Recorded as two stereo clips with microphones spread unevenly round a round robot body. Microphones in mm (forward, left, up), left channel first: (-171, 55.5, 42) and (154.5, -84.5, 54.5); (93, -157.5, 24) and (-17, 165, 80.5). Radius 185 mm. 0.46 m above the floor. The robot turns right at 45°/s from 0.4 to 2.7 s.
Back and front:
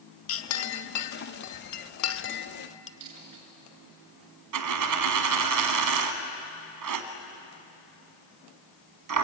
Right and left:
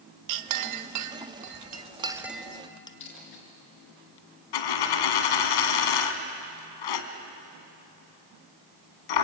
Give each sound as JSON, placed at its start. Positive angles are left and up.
{"t": 0.3, "sound": "a clink", "azimuth_deg": 120, "distance_m": 0.9}
{"t": 3.0, "sound": "a dropped coin", "azimuth_deg": -65, "distance_m": 4.0}
{"t": 4.5, "sound": "a dropped coin", "azimuth_deg": -65, "distance_m": 1.9}